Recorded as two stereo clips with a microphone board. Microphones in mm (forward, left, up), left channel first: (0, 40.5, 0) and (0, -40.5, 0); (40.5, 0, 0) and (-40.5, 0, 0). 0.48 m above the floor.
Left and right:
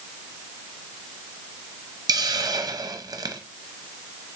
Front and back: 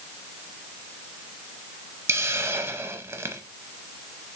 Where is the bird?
No bird in this recording.